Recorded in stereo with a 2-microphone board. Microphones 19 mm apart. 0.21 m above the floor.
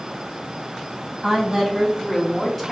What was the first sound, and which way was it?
A woman speaking, 20° right (ahead or behind).